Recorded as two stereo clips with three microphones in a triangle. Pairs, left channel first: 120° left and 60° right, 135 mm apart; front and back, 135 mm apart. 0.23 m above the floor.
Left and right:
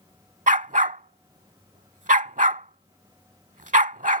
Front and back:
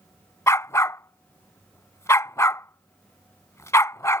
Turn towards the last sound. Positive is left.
turn(degrees=-70)